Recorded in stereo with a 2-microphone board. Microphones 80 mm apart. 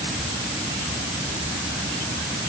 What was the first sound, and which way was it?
Only background noise.